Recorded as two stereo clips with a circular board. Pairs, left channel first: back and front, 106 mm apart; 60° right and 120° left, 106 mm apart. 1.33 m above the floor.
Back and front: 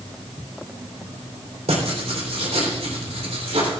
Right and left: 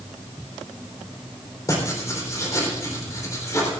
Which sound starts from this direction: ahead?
Writing, at 1.7 s.